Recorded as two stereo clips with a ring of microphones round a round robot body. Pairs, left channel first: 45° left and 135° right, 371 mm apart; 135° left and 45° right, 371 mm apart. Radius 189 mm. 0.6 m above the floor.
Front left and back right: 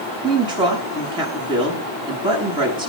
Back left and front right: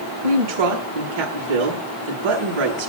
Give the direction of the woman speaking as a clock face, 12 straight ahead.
2 o'clock.